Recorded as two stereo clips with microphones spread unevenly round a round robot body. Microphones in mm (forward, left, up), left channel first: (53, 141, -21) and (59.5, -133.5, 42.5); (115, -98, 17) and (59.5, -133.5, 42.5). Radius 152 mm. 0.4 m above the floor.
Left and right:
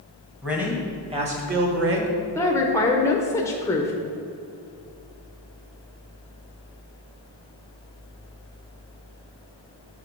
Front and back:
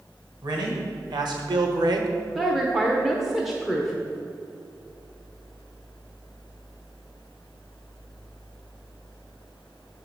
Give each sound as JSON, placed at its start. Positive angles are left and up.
{"t": 0.4, "sound": "a man speaking", "azimuth_deg": 175, "distance_m": 1.4}
{"t": 2.4, "sound": "a woman speaking", "azimuth_deg": 70, "distance_m": 0.8}